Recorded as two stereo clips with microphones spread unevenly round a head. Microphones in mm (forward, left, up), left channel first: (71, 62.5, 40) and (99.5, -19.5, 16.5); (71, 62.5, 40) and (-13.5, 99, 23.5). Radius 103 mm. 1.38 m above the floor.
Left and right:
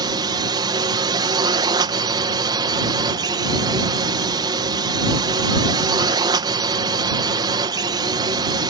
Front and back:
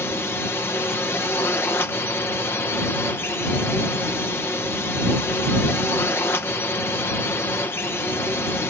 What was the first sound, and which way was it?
A drone, 100° right.